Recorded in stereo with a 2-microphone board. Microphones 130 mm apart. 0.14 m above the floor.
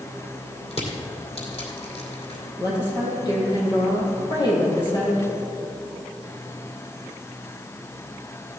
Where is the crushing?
55° left (ahead or behind), 2.5 m.